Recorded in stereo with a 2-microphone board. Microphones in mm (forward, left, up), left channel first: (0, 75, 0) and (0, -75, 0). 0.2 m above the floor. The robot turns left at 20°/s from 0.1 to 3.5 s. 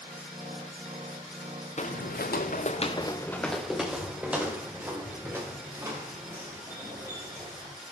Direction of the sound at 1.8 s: 50° left (ahead or behind).